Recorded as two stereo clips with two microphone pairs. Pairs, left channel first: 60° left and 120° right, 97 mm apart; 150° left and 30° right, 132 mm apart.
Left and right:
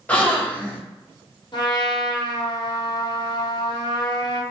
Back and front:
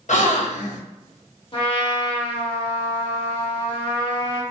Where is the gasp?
135° left, 0.7 m.